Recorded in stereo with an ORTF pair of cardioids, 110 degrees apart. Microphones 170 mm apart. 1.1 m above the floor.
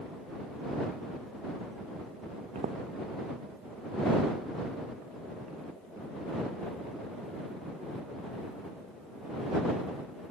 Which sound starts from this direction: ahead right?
Footsteps, at 2.5 s.